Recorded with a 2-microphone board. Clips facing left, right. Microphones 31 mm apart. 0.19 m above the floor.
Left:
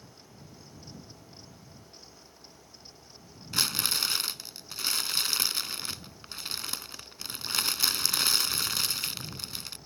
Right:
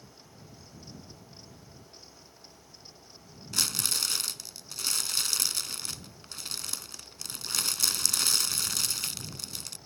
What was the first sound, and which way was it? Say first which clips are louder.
Crumpling: left 2 dB; 20° left (ahead or behind).